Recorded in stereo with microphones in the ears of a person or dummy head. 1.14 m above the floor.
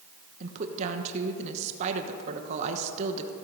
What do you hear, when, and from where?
0.4 s a woman speaking: 45° right (ahead or behind), 1.0 m